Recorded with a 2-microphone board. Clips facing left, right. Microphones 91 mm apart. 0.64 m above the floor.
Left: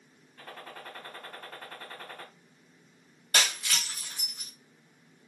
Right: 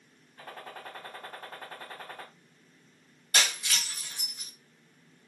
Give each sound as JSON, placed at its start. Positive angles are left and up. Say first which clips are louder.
{"t": 0.4, "sound": "a gunshot", "louder": "right 1 dB", "side_deg": -20, "distance_m": 0.8}
{"t": 3.3, "sound": "breaking glass", "louder": "even", "side_deg": 45, "distance_m": 1.2}